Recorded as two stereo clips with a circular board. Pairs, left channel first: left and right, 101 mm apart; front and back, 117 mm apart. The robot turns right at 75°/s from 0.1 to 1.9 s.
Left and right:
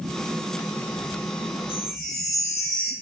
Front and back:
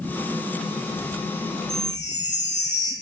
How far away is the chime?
About 3.5 m.